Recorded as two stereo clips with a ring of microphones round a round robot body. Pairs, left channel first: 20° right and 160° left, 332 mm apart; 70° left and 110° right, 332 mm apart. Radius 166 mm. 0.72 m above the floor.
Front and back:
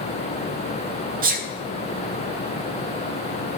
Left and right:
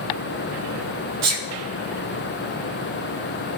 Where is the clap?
No clap in this recording.